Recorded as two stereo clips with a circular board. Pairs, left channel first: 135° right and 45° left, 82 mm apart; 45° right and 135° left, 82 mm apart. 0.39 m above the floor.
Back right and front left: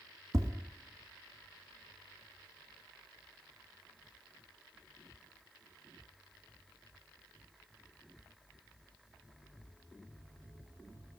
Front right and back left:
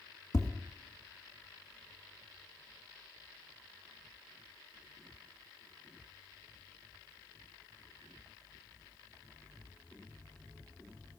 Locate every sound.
0.3 s tapping: 5° right, 1.4 m